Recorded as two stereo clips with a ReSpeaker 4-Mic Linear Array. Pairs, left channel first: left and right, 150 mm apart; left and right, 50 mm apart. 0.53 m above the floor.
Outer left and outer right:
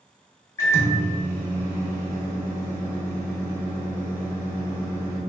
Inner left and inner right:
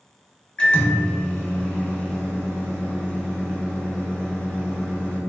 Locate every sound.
0.6 s a microwave: 20° left (ahead or behind), 0.8 m